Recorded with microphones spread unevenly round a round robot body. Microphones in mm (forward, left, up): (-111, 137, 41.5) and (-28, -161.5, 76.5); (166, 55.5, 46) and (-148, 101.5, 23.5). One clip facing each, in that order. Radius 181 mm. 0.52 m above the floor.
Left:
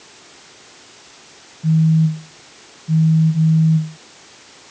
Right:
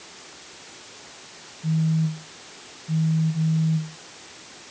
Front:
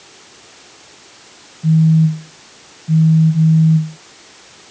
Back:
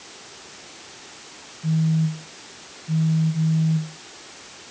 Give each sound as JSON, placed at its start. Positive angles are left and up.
{"t": 1.6, "sound": "a phone buzzing", "azimuth_deg": 45}